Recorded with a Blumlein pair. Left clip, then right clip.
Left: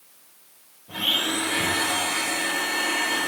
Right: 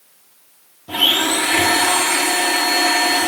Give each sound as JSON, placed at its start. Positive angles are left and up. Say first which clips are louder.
{"t": 0.9, "sound": "a blender", "louder": "right 8 dB", "azimuth_deg": -45, "distance_m": 1.8}